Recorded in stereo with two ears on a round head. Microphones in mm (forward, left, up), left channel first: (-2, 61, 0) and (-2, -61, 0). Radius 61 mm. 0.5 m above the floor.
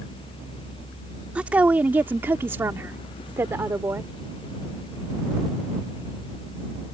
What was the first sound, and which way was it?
A woman speaking, 10° right (ahead or behind).